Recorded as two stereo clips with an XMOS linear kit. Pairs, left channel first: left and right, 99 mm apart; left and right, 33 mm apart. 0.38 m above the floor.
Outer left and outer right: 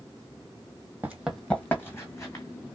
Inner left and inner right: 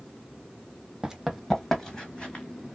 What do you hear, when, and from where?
1.0 s running footsteps: 20° right (ahead or behind), 0.6 m; by 2.5 s 35° left (ahead or behind), 1.3 m